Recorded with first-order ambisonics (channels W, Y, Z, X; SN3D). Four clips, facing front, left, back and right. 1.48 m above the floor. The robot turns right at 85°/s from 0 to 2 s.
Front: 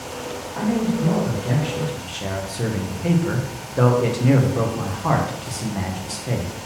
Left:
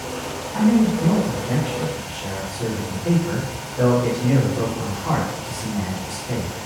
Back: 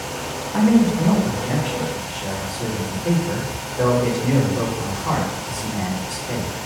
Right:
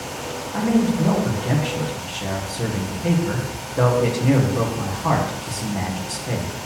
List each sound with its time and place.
0.5 s a man speaking: 155° right, 1.4 m; by 6.5 s 30° right, 1.4 m